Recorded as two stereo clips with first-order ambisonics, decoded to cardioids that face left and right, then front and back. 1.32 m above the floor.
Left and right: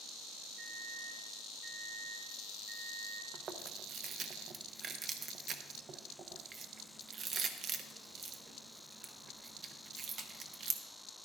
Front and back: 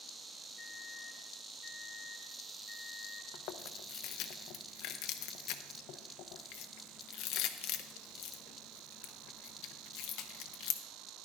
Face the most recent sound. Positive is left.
turn(degrees=-30)